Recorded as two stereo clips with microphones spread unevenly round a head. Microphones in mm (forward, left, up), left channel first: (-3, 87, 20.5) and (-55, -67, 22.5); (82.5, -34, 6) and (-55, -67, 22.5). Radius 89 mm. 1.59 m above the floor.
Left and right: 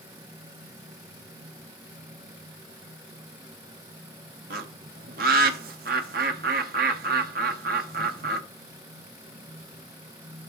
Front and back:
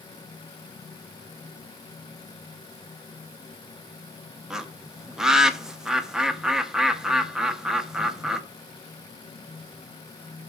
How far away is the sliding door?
I don't hear a sliding door.